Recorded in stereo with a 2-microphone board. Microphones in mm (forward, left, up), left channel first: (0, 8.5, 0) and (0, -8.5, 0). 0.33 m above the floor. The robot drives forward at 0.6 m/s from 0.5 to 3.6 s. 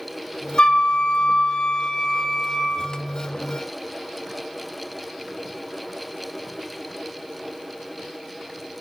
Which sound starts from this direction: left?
A flute, at 0.6 s.